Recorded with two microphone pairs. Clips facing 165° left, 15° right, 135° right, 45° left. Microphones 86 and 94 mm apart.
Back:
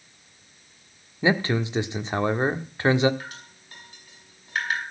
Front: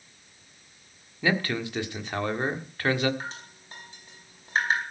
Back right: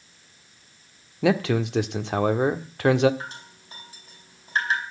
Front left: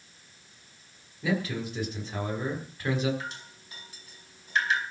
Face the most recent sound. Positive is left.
turn(degrees=-80)